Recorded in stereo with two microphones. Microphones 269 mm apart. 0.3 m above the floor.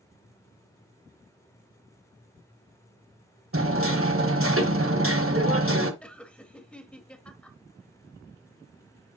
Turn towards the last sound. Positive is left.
turn(degrees=5)  # may be behind; listen again after turning